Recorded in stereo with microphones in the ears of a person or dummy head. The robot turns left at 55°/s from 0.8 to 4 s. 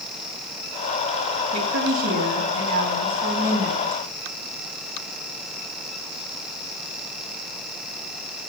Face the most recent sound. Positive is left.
turn(degrees=165)